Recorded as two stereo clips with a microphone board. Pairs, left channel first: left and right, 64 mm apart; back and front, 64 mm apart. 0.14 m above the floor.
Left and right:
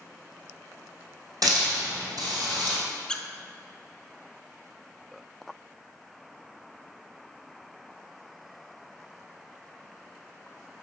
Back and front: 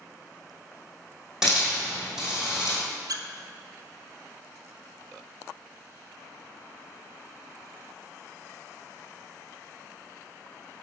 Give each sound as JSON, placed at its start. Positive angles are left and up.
{"t": 1.4, "sound": "a hiss", "azimuth_deg": -85, "distance_m": 2.5}
{"t": 3.1, "sound": "a squeak", "azimuth_deg": 15, "distance_m": 0.5}